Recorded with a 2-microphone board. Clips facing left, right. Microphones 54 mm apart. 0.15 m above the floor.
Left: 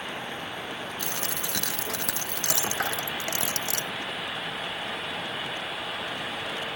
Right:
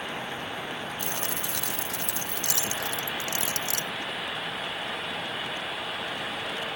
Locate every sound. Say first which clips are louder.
1.0 s a dropped coin: even; 80° left